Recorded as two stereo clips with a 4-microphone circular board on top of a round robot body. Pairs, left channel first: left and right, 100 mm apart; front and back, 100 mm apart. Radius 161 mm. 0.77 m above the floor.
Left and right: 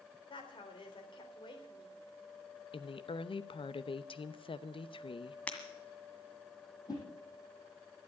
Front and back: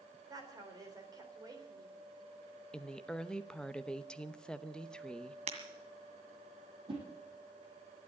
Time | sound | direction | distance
0.3 | a woman speaking | 130° left | 4 m
2.7 | a woman speaking | 80° left | 1.0 m
5.5 | breaking glass | 170° left | 1.9 m
6.9 | a whoosh | 145° left | 5.5 m